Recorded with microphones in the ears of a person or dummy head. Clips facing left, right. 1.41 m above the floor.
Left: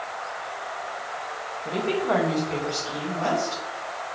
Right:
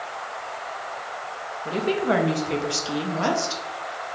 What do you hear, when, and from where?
1.6 s a woman speaking: 10° right (ahead or behind), 0.6 m; by 3.6 s 80° right, 1.0 m